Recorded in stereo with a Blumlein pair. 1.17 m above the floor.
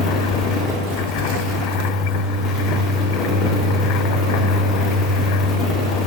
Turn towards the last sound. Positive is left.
turn(degrees=25)